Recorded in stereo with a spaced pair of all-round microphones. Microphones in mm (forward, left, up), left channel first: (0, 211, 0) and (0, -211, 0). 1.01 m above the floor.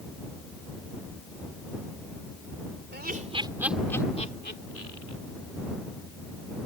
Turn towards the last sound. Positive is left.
turn(degrees=45)  # may be behind; listen again after turning